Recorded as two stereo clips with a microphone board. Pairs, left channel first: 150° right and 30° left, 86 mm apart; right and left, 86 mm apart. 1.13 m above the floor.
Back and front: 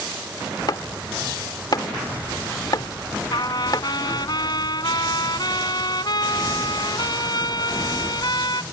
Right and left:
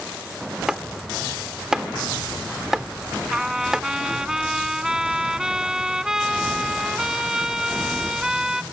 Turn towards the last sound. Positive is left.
turn(degrees=175)